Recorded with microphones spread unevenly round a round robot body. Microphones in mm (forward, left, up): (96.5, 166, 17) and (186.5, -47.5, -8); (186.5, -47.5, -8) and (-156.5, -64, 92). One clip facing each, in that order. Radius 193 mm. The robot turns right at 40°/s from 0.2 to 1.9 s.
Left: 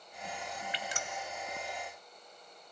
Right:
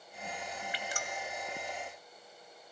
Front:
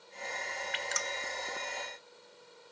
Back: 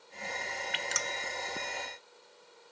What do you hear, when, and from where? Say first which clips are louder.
0.7 s dripping: even, even; 155° left, 0.7 m; by 1.1 s 170° left, 0.7 m